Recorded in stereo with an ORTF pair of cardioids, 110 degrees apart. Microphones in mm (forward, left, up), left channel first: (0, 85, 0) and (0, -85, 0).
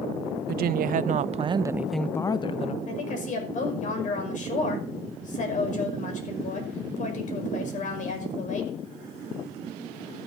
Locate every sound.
0.5 s a woman speaking: 65° right, 1.1 m; by 2.8 s 40° left, 0.9 m
2.9 s a woman speaking: 50° left, 5.5 m